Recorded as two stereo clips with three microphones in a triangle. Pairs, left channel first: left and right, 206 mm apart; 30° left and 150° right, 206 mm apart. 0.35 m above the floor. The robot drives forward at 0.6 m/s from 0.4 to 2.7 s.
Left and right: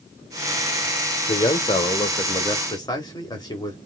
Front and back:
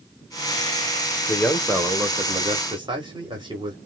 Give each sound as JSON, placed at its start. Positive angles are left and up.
{"t": 1.3, "sound": "a man speaking", "azimuth_deg": 80, "distance_m": 0.9}